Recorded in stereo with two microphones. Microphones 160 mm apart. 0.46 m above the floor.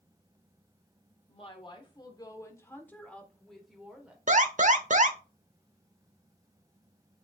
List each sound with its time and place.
1.3 s a woman speaking: 40° left (ahead or behind), 1.4 m; by 4.2 s 5° right (ahead or behind), 1.6 m
4.3 s an alarm: 55° right (ahead or behind), 0.7 m